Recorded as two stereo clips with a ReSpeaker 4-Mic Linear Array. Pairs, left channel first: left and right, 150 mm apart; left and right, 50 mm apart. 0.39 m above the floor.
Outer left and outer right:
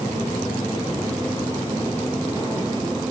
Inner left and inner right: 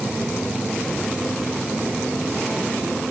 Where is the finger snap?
I don't hear a finger snap.